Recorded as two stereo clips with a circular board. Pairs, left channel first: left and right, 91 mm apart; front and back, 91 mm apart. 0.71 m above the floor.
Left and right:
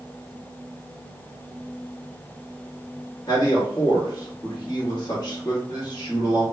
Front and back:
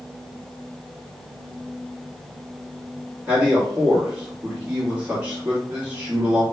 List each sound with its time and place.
3.3 s a man speaking: 110° left, 1.1 m